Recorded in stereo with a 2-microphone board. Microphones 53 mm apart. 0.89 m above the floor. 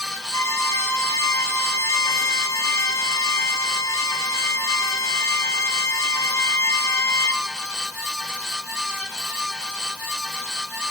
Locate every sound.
0.3 s a violin: 70° left (ahead or behind), 2.5 m